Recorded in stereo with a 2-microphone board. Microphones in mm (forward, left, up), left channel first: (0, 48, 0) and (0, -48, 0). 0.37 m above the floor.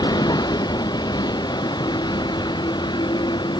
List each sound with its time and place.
0.0 s a vehicle: 45° left (ahead or behind); by 3.6 s 50° left (ahead or behind)